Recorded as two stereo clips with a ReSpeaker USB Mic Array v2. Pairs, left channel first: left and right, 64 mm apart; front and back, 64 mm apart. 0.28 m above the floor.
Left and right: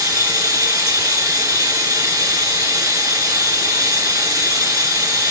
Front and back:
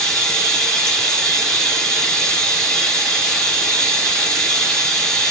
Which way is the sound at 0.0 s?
85° right.